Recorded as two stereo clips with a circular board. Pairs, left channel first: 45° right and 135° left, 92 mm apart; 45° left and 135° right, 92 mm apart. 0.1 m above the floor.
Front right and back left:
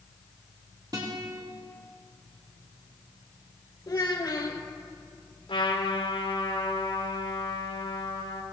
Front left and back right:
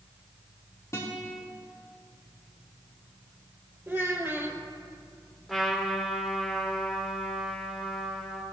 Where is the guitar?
95° left, 3.5 m.